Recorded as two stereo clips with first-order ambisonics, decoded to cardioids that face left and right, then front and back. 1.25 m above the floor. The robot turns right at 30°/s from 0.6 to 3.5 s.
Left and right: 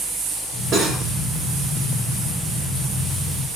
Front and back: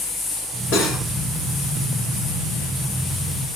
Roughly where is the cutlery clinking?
Ahead right.